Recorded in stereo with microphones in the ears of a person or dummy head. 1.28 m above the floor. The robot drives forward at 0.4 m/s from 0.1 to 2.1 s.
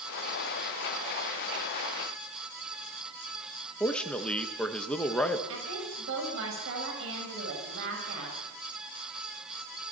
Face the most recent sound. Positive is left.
turn(degrees=-75)  # may be behind; listen again after turning